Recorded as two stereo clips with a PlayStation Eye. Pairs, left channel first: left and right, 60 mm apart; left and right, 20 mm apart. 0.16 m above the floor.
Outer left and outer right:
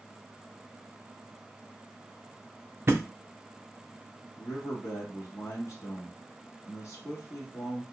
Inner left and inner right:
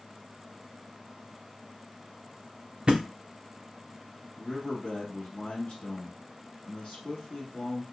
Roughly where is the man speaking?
Left.